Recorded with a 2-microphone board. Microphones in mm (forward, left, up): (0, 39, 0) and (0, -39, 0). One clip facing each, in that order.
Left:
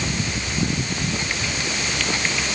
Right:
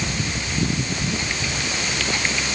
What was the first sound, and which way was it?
Only background noise.